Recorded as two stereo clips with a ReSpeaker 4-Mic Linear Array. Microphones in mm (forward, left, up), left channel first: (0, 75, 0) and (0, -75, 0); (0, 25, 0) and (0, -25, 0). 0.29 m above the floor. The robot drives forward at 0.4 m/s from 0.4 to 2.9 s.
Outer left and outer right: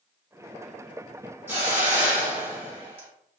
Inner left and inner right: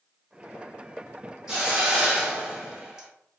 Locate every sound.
1.5 s a hiss: 15° right (ahead or behind), 1.1 m